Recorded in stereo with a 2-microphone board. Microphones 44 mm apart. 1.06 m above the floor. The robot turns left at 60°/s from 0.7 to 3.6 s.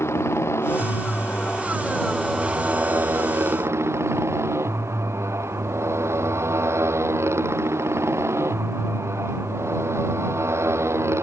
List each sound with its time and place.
0.0 s a motorcycle: 80° left; by 11.2 s 95° right